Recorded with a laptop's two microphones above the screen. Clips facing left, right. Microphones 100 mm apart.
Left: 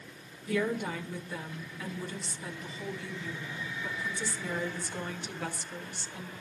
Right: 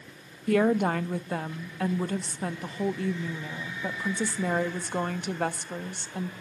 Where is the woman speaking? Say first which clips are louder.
Right 8 dB; 60° right (ahead or behind), 1.2 m.